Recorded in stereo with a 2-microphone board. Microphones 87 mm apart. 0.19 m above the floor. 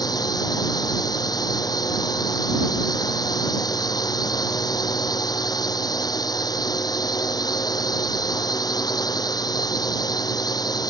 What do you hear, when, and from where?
0.0 s a drone: 50° left (ahead or behind)